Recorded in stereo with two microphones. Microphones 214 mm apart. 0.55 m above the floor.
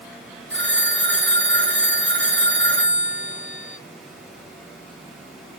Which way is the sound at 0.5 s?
60° right (ahead or behind).